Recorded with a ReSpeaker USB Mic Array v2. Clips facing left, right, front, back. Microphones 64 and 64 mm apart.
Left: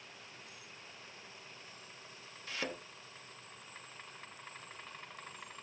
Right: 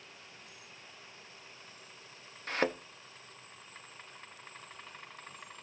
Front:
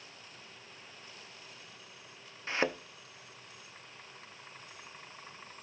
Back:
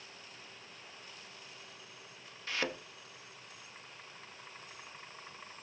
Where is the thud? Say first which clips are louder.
Right 9 dB, front 5 dB; 60° right, 0.7 m.